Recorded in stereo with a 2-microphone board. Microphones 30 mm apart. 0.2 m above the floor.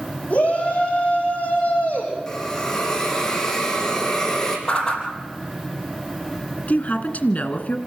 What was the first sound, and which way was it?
A shout, 40° left (ahead or behind).